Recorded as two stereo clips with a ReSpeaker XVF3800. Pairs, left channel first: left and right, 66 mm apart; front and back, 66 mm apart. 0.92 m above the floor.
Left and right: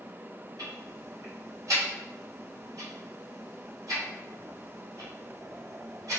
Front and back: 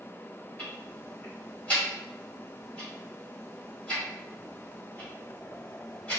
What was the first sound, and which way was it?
Ticking, 65° right.